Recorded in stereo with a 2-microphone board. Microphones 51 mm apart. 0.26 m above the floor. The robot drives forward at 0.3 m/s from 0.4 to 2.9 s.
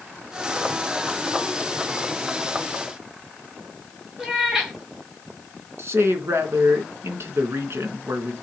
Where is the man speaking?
60° right (ahead or behind), 2.5 m.